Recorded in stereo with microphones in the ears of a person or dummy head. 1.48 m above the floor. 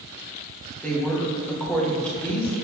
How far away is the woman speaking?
About 1.3 m.